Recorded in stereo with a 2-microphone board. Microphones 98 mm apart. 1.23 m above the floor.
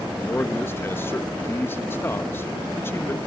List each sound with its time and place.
0.2 s a man speaking: 25° left (ahead or behind), 1.4 m